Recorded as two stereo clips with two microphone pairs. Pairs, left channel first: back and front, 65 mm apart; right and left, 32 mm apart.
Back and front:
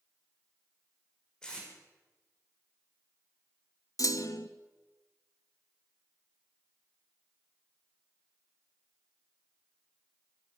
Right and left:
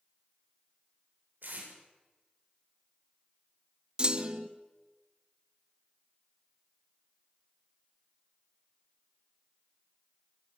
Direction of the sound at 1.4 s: 100° left.